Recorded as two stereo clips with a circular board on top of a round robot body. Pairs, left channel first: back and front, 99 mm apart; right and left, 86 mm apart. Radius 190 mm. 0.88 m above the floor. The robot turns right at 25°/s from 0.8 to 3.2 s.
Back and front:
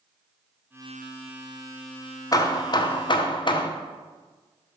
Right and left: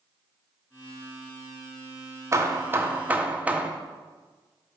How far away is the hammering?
About 0.7 m.